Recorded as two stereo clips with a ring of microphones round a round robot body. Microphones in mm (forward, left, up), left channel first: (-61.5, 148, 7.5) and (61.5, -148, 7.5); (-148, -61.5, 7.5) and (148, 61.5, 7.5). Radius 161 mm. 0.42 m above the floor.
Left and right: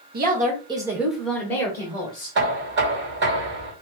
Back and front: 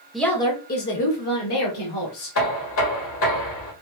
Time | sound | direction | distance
0.1 | a woman speaking | 65° right | 0.8 m
2.4 | knocking | 120° right | 1.4 m